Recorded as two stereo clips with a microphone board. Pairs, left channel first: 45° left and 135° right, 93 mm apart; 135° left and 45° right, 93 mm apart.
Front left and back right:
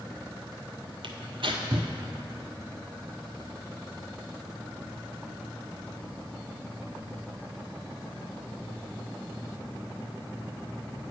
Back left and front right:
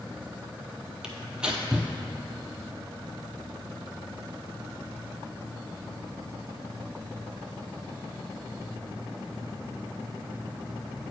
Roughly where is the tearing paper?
Behind right.